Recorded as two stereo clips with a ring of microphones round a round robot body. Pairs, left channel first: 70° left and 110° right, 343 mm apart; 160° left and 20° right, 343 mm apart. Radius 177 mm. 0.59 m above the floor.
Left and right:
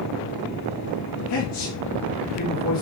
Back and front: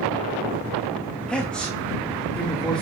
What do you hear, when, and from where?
1.3 s a man speaking: 70° left, 1.8 m